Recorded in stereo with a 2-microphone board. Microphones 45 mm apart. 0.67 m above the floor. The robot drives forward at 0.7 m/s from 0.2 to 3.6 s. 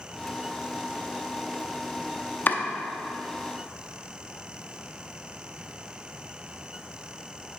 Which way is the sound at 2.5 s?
45° left (ahead or behind).